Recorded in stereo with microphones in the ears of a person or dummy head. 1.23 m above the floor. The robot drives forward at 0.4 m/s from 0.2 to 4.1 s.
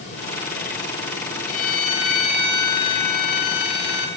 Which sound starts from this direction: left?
A violin, at 1.5 s.